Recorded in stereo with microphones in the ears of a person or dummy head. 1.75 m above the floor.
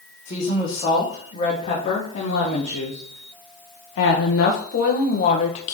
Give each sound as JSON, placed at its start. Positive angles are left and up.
{"t": 0.2, "sound": "a woman speaking", "side_deg": 30, "distance_m": 3.0}